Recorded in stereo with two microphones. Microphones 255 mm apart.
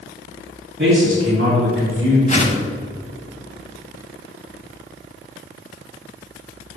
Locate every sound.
0.8 s a man speaking: 50° right (ahead or behind), 2.5 m; by 2.2 s 60° right (ahead or behind), 3 m
2.3 s a whoosh: 30° left (ahead or behind), 0.9 m